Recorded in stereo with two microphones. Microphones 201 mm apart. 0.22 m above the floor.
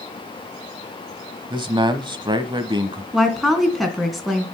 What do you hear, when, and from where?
1.5 s a man speaking: 25° right (ahead or behind), 1.1 m
3.1 s a woman speaking: centre (ahead or behind), 2.5 m